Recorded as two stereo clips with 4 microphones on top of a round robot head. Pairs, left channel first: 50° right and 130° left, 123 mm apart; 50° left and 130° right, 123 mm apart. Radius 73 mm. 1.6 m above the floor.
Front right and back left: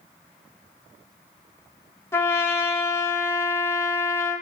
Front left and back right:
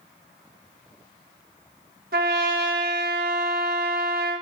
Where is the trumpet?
120° right, 1.4 m.